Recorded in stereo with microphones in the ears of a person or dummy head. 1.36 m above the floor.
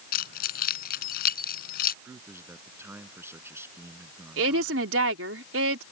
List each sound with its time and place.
0.1 s keys jangling: 60° left (ahead or behind)
2.0 s a man speaking: 10° right (ahead or behind)
4.4 s a woman speaking: 85° right